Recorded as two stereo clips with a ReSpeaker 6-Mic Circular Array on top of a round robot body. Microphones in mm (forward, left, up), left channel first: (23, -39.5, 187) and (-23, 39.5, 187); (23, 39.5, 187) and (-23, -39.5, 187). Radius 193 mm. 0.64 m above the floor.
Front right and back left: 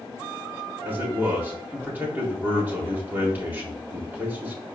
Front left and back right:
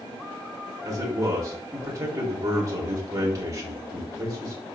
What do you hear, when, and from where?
0.8 s a man speaking: 170° right, 4 m